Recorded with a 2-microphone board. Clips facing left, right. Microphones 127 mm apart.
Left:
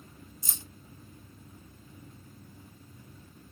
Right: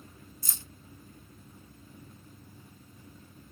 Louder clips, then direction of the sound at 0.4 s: Left 1 dB; 20° left (ahead or behind).